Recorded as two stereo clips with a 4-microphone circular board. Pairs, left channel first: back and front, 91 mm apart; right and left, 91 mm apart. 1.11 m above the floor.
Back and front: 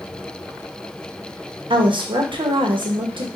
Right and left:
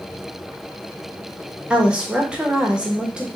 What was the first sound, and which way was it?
A woman speaking, 10° left.